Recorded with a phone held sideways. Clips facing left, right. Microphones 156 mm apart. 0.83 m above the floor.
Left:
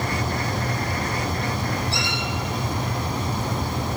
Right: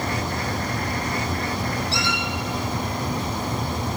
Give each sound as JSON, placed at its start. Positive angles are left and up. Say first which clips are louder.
{"t": 1.9, "sound": "a squeak", "louder": "right 1 dB", "side_deg": 55, "distance_m": 4.5}